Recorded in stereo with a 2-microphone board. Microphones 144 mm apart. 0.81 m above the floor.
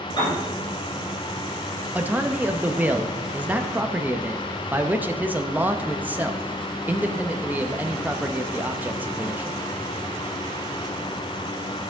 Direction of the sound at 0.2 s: 35° left (ahead or behind).